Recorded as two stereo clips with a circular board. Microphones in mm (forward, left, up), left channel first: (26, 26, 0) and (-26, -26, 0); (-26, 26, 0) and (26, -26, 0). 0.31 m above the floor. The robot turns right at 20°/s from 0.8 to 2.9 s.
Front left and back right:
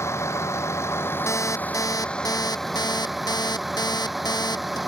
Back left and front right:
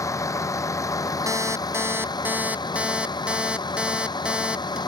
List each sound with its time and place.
0.0 s a vehicle: 95° left; by 4.9 s 135° left
1.3 s an alarm clock: straight ahead; by 4.8 s 30° left